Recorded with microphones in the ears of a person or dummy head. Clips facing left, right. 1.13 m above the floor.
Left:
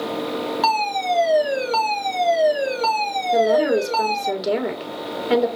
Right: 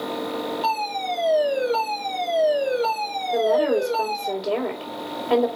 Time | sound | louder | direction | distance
0.6 | a fire alarm | left 4 dB | 75° left (ahead or behind) | 3 m
3.3 | a woman speaking | left 2 dB | 20° left (ahead or behind) | 2.5 m